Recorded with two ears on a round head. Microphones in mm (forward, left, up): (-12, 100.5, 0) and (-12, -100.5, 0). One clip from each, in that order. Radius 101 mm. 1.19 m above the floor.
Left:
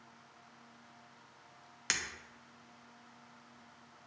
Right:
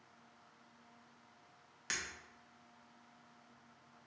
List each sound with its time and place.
1.9 s breaking glass: 30° left (ahead or behind), 0.6 m